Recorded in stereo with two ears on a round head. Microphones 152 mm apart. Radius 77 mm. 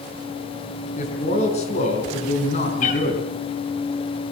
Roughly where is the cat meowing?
Left.